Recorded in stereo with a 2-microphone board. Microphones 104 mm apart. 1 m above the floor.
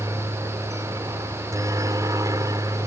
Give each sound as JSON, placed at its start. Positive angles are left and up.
{"t": 0.0, "sound": "a helicopter", "side_deg": -30}